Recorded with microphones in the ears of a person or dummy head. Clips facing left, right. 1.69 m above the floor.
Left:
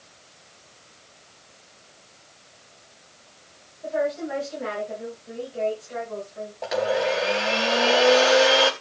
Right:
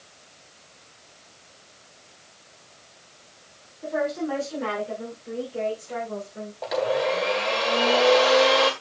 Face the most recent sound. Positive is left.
turn(degrees=5)  # may be behind; listen again after turning